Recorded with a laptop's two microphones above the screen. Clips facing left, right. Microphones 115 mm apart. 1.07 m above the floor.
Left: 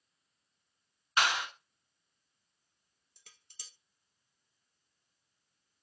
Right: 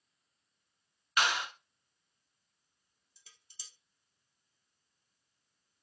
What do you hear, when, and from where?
1.2 s a clap: 30° left (ahead or behind), 1.7 m
3.2 s dishes clattering: 60° left (ahead or behind), 0.6 m